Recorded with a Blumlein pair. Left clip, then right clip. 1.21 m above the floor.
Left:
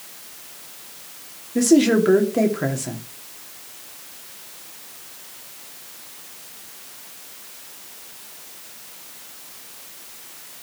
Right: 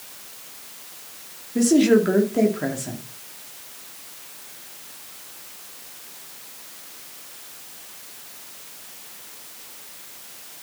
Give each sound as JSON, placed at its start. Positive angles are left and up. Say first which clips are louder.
{"t": 1.6, "sound": "a woman speaking", "louder": "left 1 dB", "azimuth_deg": 5, "distance_m": 2.5}